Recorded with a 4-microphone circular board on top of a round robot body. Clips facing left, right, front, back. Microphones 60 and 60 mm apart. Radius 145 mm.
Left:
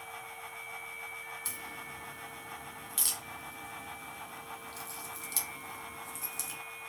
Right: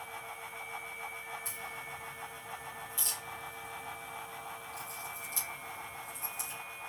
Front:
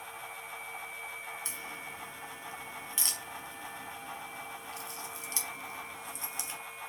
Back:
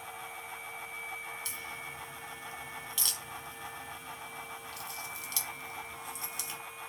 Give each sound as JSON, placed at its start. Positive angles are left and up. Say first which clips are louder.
{"t": 1.4, "sound": "a crack", "louder": "right 1 dB, even", "azimuth_deg": 65, "distance_m": 1.4}